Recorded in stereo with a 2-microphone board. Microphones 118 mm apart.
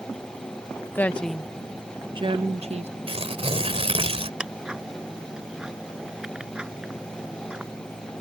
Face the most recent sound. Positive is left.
turn(degrees=-5)  # may be behind; listen again after turning